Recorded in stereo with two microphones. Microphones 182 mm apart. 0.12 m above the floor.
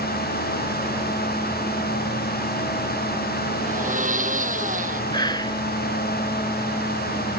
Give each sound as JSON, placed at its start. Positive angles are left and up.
{"t": 3.7, "sound": "a blender", "side_deg": -45}
{"t": 5.1, "sound": "whispering", "side_deg": 25}